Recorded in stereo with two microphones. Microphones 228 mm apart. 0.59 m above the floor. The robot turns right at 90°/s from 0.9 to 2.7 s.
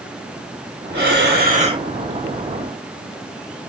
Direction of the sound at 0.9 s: 105° right.